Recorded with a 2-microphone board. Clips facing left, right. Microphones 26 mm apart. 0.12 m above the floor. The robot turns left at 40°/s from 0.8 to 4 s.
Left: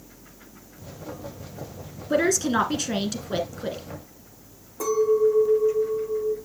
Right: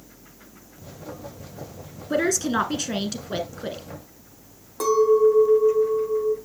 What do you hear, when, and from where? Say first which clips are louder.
2.1 s a woman speaking: left 1 dB; 5° left (ahead or behind), 1.1 m; by 3.8 s 15° right (ahead or behind), 1.1 m
4.8 s a clink: right 3 dB; 65° right (ahead or behind), 2.5 m